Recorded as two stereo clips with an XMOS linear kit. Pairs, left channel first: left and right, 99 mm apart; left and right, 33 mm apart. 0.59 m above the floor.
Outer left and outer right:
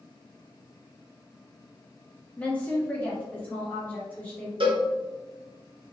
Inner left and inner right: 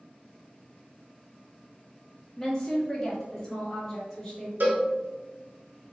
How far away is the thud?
No thud in this recording.